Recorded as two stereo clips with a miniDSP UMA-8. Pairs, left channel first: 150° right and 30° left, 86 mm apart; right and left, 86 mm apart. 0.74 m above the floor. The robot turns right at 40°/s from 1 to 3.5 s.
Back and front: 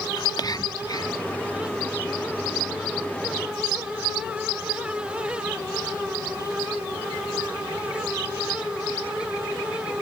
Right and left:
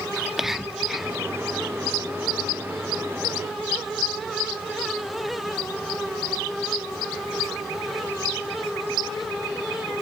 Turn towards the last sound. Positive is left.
turn(degrees=-85)